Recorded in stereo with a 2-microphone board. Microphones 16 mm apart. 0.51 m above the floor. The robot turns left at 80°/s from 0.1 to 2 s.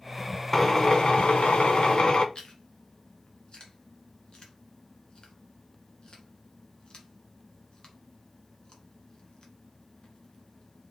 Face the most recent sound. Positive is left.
turn(degrees=40)  # may be behind; listen again after turning